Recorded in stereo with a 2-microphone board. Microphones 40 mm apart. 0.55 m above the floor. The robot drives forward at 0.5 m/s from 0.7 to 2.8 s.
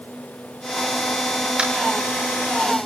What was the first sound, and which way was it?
Tapping, 25° right (ahead or behind).